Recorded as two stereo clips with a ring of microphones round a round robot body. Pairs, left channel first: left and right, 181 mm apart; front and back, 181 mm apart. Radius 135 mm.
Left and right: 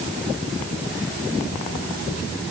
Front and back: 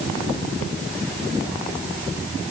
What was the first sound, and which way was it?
Only background noise.